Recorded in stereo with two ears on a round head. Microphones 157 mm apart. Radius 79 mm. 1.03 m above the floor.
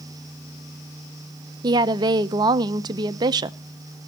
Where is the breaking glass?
I don't hear breaking glass.